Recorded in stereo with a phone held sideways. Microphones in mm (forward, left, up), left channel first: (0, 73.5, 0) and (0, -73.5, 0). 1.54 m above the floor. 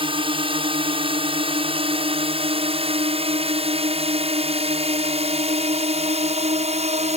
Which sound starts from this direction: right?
A drone, at 0.0 s.